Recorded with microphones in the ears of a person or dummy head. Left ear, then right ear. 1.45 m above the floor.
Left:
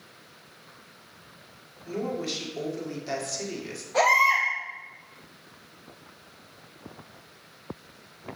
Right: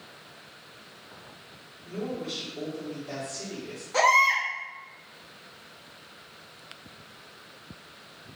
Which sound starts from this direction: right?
A baby crying, at 3.9 s.